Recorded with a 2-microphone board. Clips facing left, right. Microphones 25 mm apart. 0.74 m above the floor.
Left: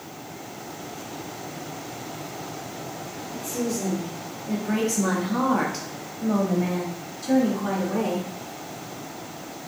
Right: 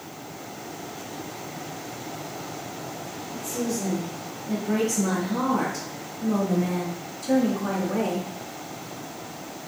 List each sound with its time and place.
3.3 s a woman speaking: 45° left (ahead or behind), 1.6 m; by 8.3 s 5° left (ahead or behind), 1.9 m